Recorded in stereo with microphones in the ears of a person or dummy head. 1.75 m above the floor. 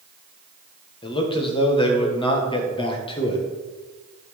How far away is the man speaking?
About 1.8 m.